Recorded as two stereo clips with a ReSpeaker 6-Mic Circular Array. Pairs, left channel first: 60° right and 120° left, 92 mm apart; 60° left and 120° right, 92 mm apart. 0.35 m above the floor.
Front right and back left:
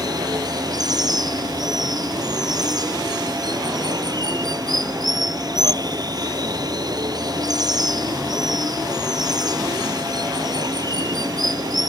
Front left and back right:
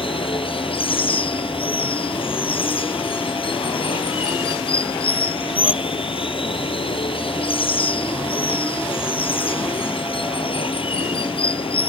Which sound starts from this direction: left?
Running water, at 0.0 s.